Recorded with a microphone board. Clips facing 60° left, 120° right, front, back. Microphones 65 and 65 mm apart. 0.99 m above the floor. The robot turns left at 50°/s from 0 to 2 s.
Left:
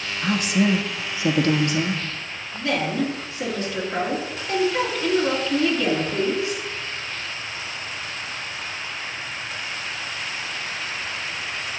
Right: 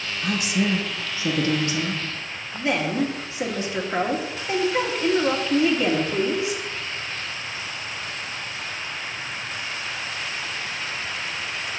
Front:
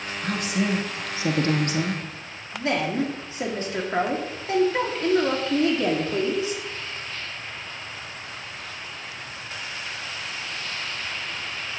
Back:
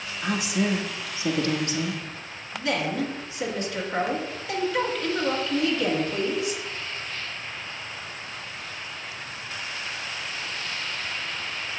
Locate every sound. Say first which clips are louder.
0.2 s a woman speaking: left 3 dB, even; 110° left, 1.4 m; by 2.0 s 20° left, 1.4 m
2.5 s a woman speaking: even, front 2 dB; 55° right, 2 m